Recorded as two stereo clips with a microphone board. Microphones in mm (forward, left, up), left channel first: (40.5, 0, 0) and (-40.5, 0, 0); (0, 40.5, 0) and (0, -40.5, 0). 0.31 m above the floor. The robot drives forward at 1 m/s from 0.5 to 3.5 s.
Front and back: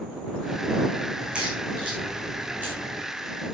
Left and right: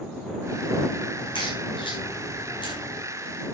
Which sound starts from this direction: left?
A crack, at 1.2 s.